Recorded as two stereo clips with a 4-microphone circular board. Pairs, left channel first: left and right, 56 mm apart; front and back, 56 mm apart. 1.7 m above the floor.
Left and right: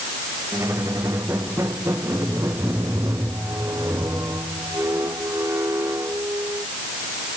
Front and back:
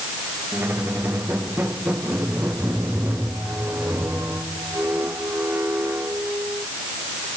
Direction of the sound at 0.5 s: 130° right.